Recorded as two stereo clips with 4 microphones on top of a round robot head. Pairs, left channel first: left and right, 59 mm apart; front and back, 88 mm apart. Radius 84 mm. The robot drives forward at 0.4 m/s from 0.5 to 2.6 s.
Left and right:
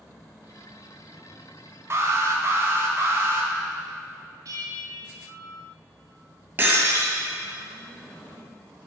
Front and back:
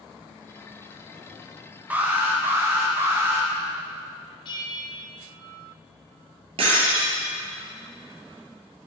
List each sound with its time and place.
1.9 s an alarm: 110° right, 1.6 m; by 3.5 s 125° right, 1.7 m
4.5 s a bell: 45° right, 1.0 m
6.6 s breaking glass: 150° right, 2.5 m